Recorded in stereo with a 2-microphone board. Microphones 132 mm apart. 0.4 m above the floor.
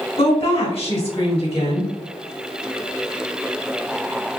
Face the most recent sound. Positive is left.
turn(degrees=45)  # may be behind; listen again after turning